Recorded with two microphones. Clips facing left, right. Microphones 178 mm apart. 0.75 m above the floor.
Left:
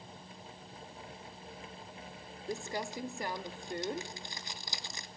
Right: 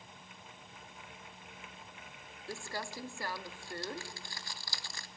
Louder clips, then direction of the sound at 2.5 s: Left 4 dB; 20° left (ahead or behind).